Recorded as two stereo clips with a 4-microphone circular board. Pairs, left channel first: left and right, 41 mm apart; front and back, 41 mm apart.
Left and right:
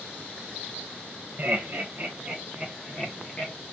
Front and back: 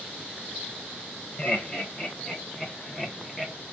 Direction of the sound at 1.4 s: 50° right.